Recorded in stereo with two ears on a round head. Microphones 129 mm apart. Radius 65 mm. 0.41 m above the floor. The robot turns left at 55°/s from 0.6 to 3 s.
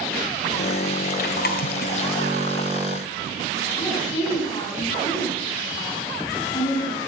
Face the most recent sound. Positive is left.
turn(degrees=30)  # may be behind; listen again after turning